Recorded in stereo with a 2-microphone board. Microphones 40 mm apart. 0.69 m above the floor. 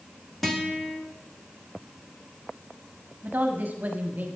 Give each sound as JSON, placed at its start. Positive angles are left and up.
{"t": 0.4, "sound": "a guitar", "side_deg": 5, "distance_m": 1.5}
{"t": 3.2, "sound": "a woman speaking", "side_deg": -45, "distance_m": 1.1}